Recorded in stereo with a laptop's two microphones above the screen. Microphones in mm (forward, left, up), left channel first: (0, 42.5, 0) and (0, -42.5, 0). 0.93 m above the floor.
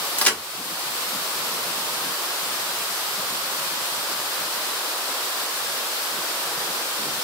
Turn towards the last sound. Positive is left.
turn(degrees=15)  # may be behind; listen again after turning